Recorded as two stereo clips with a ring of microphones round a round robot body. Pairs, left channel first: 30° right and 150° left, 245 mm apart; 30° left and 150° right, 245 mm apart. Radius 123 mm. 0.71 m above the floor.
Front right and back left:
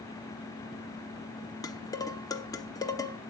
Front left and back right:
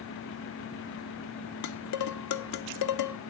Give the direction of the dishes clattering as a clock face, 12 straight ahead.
10 o'clock.